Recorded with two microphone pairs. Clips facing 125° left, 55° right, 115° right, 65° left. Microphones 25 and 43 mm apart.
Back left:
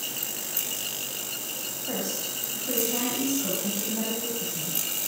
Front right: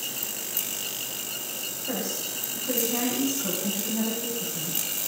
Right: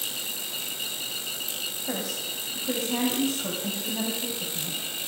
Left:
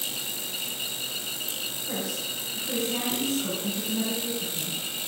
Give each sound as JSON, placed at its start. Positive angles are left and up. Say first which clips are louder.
{"t": 1.9, "sound": "a woman speaking", "louder": "even, even", "azimuth_deg": -140, "distance_m": 5.0}